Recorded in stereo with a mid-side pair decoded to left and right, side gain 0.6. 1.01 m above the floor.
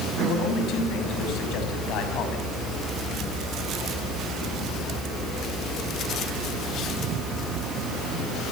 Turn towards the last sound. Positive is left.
turn(degrees=65)